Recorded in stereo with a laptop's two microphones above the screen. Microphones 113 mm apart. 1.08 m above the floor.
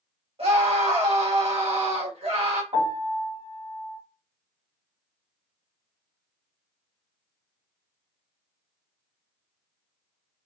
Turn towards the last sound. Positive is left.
turn(degrees=-60)  # may be behind; listen again after turning